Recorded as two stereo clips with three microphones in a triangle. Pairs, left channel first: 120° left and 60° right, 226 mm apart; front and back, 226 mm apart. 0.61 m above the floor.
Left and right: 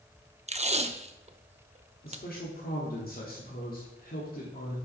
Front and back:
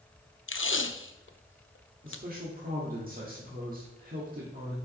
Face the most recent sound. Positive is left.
turn(degrees=150)